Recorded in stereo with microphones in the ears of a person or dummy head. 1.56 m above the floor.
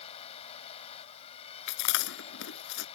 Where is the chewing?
70° left (ahead or behind).